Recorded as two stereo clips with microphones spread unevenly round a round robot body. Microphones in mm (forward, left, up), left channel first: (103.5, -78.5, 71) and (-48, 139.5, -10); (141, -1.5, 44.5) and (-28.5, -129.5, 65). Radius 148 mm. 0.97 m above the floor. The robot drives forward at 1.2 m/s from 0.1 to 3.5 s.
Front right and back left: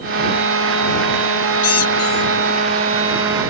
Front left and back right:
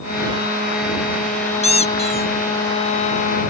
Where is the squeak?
25° right.